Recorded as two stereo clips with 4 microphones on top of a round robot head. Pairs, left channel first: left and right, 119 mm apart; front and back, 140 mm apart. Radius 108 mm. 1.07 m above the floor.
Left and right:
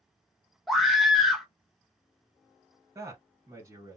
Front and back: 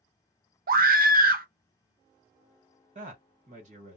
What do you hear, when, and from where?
0.7 s a scream: straight behind, 0.6 m
3.0 s a man speaking: 155° right, 1.4 m